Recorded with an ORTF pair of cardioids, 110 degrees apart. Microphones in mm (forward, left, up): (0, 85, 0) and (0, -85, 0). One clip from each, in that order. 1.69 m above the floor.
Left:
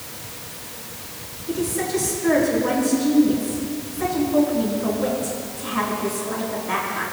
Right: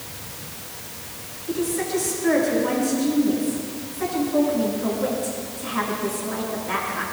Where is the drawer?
I don't hear a drawer.